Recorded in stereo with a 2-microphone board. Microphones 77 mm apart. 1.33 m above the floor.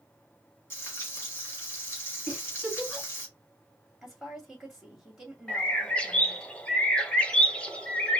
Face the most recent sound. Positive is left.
turn(degrees=15)  # may be behind; listen again after turning